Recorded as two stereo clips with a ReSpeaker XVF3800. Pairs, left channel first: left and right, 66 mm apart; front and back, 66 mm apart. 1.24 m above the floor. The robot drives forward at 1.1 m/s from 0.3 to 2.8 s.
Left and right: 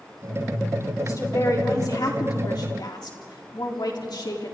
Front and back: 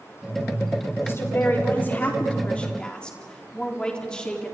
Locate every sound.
1.0 s a woman speaking: 50° left, 4.5 m; by 4.5 s 75° left, 3.5 m